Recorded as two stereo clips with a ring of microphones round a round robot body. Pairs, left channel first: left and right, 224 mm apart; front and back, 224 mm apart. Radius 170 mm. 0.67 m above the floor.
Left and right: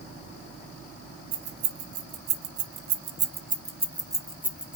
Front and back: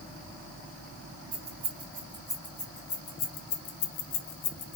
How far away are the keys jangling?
About 1.2 m.